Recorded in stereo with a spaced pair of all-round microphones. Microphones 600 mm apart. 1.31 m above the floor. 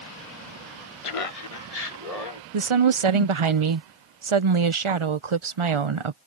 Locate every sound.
1.0 s laughter: 55° left (ahead or behind); by 2.4 s 80° left
2.5 s a woman speaking: 55° right (ahead or behind)